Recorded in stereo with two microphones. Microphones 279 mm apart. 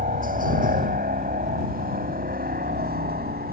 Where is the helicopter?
30° right (ahead or behind); by 3.5 s 35° right (ahead or behind).